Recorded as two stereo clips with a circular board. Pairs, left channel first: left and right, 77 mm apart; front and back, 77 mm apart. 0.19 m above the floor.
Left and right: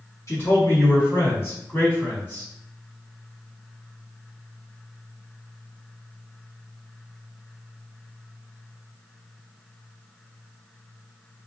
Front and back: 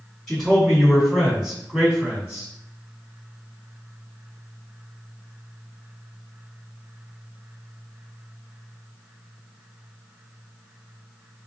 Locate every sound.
0.3 s a man speaking: 80° left, 2.0 m; by 2.5 s 135° left, 1.8 m